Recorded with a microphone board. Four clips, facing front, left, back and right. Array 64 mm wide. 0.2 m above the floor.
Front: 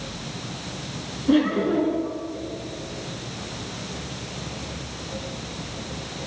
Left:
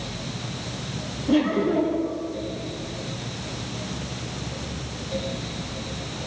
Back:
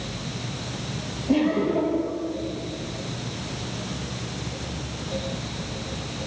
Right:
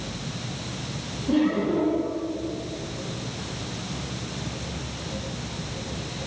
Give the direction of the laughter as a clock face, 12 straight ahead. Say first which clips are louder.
Left 1 dB, front 2 dB; 12 o'clock.